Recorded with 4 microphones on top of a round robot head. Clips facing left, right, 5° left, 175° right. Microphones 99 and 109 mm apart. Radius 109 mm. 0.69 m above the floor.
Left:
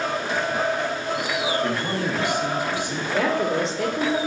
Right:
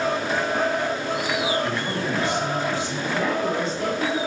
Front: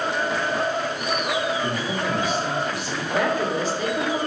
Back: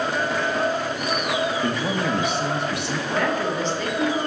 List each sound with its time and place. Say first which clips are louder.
1.6 s a man speaking: left 1 dB, back 2 dB; 170° left, 1.0 m
3.1 s a woman speaking: left 2 dB, front 2 dB; 90° left, 1.2 m